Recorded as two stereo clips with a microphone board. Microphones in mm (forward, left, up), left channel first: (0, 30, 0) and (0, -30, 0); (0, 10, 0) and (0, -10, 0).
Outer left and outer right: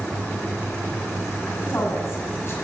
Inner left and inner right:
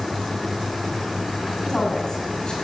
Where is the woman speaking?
45° left (ahead or behind), 7 m.